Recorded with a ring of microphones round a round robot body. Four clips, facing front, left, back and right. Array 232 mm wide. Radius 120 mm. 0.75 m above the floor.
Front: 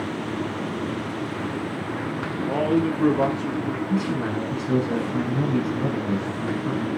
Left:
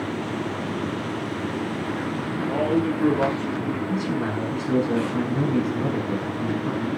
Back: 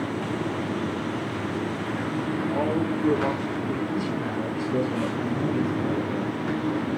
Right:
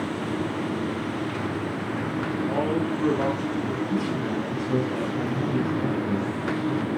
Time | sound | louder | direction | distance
2.5 | a man speaking | left 5 dB, front 5 dB | 5° left | 9.5 m
3.9 | a man speaking | left 1 dB, front 3 dB | 30° left | 7 m